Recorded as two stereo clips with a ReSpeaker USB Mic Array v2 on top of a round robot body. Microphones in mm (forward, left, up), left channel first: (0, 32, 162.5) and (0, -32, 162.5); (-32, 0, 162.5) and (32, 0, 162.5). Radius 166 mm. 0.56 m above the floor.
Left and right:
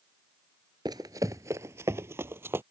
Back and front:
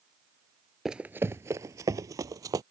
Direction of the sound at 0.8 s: 85° right.